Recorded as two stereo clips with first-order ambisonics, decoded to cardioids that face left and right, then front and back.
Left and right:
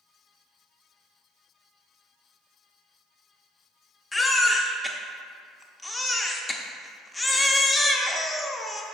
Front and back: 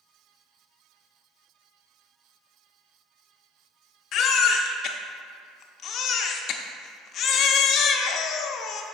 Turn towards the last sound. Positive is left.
turn(degrees=15)